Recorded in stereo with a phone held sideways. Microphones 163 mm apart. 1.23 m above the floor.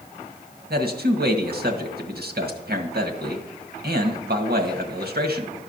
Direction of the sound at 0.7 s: 75° right (ahead or behind).